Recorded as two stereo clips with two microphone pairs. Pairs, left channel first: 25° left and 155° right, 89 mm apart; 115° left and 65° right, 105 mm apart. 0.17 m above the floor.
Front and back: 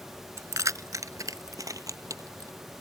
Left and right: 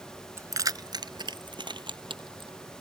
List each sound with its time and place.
0.4 s keys jangling: 115° right; by 2.5 s 100° right